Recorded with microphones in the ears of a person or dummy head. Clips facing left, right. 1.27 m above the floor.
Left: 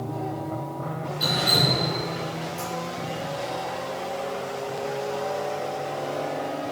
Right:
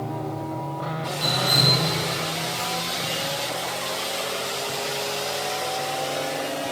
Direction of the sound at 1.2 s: 20° left (ahead or behind).